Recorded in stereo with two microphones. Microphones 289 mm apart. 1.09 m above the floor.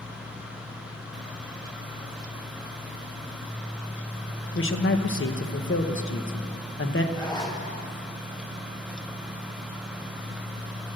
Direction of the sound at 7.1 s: 15° left (ahead or behind).